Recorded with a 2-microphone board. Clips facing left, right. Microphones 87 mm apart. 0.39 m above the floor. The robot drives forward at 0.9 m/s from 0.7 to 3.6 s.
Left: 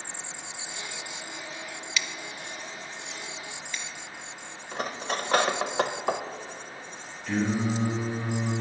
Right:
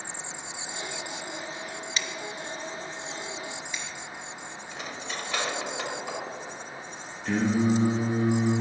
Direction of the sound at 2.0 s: 35° right (ahead or behind).